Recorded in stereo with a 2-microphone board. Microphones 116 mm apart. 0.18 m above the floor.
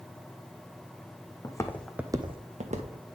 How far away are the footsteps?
About 0.9 m.